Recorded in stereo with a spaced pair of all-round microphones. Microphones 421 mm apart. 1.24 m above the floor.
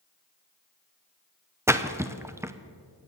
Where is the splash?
5° right (ahead or behind), 0.6 m.